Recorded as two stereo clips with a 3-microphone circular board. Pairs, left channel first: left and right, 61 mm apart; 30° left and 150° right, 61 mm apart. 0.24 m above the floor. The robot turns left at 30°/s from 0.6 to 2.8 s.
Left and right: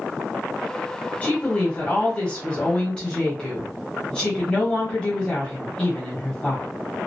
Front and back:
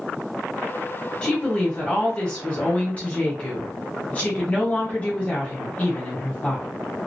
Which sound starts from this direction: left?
A woman speaking, at 1.2 s.